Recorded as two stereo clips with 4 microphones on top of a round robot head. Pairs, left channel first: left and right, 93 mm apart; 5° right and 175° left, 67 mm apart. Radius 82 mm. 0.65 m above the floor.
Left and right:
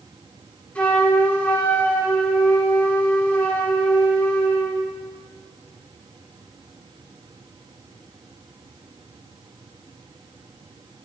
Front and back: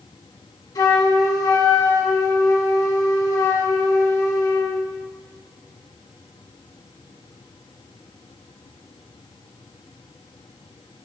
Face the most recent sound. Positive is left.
turn(degrees=15)